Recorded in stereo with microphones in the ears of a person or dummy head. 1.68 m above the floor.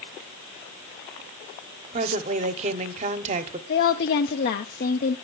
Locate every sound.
1.9 s a woman speaking: 35° right (ahead or behind), 1.3 m
3.7 s a woman speaking: 45° left (ahead or behind), 0.8 m